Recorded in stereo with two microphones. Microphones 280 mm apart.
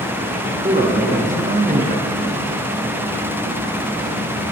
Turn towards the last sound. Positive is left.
turn(degrees=-30)  # may be behind; listen again after turning